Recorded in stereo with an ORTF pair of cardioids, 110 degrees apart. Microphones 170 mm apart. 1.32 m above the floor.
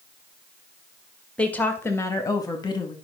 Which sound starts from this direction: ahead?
A woman speaking, at 1.4 s.